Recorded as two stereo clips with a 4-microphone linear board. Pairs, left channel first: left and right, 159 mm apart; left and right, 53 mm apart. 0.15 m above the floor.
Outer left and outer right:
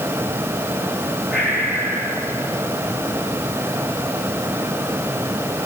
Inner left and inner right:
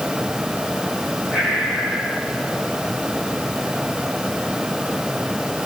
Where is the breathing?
10° right (ahead or behind), 6 m.